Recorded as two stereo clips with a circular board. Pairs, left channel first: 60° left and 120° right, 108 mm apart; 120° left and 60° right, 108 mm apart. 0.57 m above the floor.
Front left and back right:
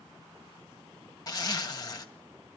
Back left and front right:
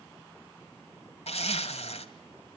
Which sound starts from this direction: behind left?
A zipper, at 1.3 s.